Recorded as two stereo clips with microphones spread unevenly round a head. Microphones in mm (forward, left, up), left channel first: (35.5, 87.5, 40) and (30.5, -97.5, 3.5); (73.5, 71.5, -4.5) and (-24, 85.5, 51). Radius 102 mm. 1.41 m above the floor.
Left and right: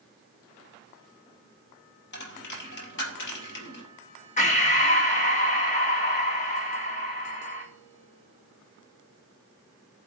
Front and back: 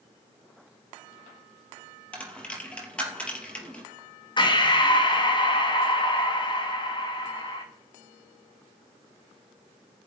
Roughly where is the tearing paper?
I don't hear tearing paper.